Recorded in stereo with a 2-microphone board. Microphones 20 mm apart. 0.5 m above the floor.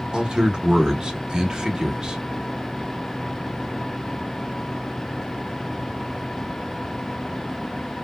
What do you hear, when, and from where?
0.1 s a man speaking: 35° right (ahead or behind), 1.0 m